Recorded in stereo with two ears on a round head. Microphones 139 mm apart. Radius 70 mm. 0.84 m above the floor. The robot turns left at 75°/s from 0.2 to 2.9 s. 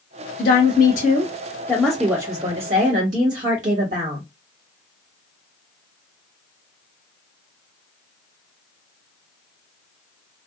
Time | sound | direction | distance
0.4 | a woman speaking | 115° left | 1.5 m